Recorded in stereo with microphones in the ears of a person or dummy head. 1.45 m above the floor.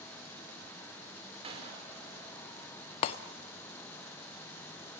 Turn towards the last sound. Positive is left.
turn(degrees=30)  # may be behind; listen again after turning